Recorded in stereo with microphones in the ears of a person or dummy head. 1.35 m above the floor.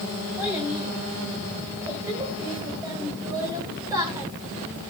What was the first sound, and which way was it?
A child speaking, 10° right (ahead or behind).